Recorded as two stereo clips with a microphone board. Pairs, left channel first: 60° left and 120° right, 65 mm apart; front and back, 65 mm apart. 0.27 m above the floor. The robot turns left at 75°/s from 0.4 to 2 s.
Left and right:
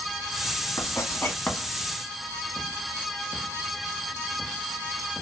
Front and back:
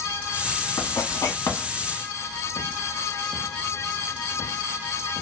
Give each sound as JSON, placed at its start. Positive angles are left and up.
{"t": 0.8, "sound": "writing", "azimuth_deg": 40, "distance_m": 1.0}